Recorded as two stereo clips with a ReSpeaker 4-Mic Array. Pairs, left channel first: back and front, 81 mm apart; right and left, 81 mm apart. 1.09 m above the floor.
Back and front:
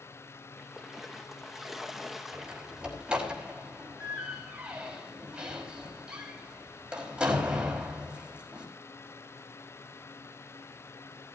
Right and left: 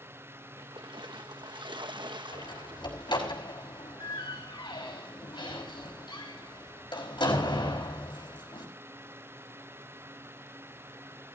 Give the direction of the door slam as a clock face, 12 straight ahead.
3 o'clock.